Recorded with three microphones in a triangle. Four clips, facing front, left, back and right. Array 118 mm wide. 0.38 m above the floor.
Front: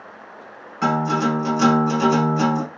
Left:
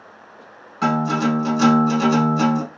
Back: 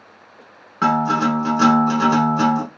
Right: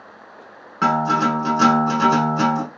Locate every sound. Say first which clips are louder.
0.8 s a guitar: right 1 dB, back 2 dB; 150° right, 1.9 m